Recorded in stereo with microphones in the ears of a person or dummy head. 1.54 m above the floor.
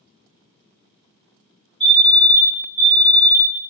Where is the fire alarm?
5° left (ahead or behind), 1.2 m.